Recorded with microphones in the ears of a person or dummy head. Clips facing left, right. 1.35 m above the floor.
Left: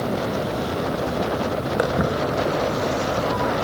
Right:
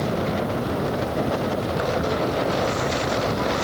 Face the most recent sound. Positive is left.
turn(degrees=65)  # may be behind; listen again after turning